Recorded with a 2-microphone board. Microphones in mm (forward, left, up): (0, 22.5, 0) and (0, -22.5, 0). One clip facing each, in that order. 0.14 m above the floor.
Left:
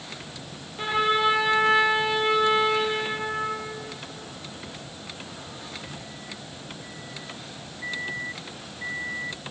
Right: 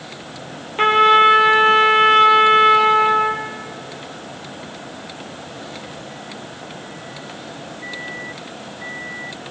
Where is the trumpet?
55° right (ahead or behind), 2.5 m.